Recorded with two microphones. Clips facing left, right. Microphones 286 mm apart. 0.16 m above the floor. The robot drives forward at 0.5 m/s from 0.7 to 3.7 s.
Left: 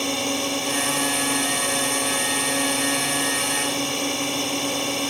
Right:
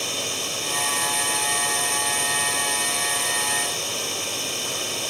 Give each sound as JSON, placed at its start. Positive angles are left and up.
{"t": 0.0, "sound": "a drone", "side_deg": 70}